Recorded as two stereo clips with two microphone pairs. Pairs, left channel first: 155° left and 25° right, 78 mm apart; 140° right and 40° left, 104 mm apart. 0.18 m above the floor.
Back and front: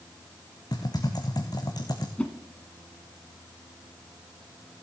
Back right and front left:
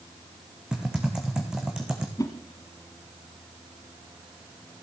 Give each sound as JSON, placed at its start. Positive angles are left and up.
{"t": 0.7, "sound": "typing on a keyboard", "azimuth_deg": 120, "distance_m": 1.9}
{"t": 2.2, "sound": "a whoosh", "azimuth_deg": -145, "distance_m": 1.2}